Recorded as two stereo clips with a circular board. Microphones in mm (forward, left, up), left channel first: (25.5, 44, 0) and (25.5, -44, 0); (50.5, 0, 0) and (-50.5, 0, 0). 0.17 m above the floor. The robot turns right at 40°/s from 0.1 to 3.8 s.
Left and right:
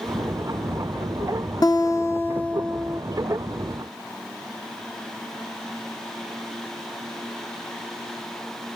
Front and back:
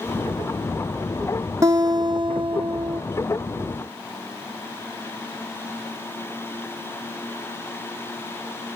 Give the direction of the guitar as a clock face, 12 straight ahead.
8 o'clock.